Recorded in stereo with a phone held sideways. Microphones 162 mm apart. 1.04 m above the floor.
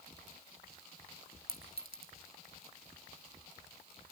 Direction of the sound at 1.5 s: 65° right (ahead or behind).